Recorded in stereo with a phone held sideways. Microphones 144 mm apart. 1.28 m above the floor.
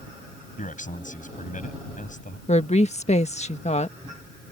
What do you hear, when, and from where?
0.6 s a man speaking: 65° left (ahead or behind)
2.5 s a woman speaking: 50° left (ahead or behind)